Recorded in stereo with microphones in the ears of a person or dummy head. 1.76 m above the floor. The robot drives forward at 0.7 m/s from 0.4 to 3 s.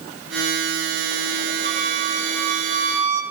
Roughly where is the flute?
Right.